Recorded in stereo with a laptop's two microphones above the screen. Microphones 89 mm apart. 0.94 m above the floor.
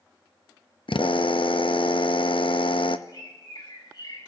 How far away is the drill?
About 0.5 m.